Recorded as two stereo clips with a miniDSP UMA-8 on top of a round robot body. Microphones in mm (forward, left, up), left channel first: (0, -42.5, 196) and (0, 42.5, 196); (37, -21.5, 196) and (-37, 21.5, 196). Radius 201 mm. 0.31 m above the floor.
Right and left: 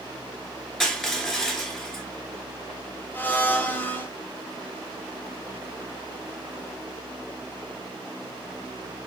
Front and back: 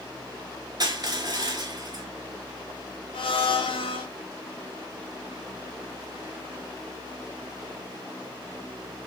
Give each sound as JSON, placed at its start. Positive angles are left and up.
{"t": 0.8, "sound": "crushing", "azimuth_deg": -175, "distance_m": 2.5}
{"t": 3.1, "sound": "a blender", "azimuth_deg": -20, "distance_m": 1.0}